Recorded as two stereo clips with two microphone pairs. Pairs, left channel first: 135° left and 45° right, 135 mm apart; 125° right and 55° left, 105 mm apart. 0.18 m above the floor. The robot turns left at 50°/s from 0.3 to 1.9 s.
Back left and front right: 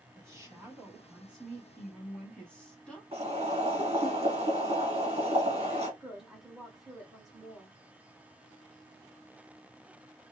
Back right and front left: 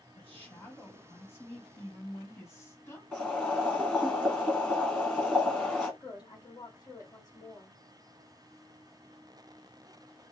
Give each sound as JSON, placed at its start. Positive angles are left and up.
{"t": 0.1, "sound": "a woman speaking", "azimuth_deg": -70, "distance_m": 1.2}
{"t": 3.1, "sound": "boiling", "azimuth_deg": -50, "distance_m": 1.6}
{"t": 6.0, "sound": "a woman speaking", "azimuth_deg": -130, "distance_m": 1.4}